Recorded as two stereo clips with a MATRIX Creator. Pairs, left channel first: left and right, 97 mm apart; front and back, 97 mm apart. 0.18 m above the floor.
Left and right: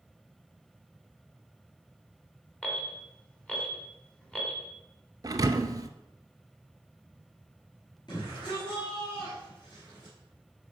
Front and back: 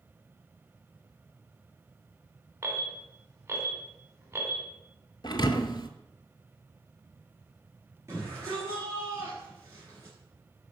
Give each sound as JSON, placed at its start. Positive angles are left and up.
{"t": 2.6, "sound": "an alarm", "azimuth_deg": 160, "distance_m": 2.0}
{"t": 5.2, "sound": "a thud", "azimuth_deg": -40, "distance_m": 0.5}
{"t": 8.1, "sound": "a shout", "azimuth_deg": 125, "distance_m": 3.5}